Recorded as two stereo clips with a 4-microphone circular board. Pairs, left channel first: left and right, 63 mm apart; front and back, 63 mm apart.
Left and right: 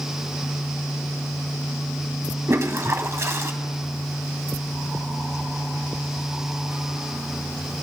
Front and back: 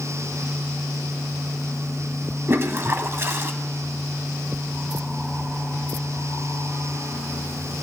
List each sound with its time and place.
2.5 s a toilet flushing: 130° right, 0.5 m